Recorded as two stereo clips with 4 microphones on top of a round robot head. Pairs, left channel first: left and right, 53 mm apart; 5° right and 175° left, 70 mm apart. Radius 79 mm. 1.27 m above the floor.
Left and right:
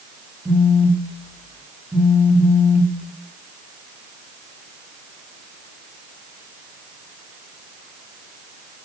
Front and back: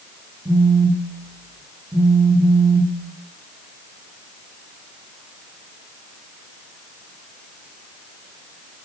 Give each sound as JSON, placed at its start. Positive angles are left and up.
{"t": 0.5, "sound": "a phone buzzing", "azimuth_deg": -145, "distance_m": 2.5}